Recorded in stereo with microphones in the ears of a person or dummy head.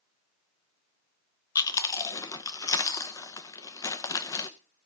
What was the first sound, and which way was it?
Chewing, 20° left (ahead or behind).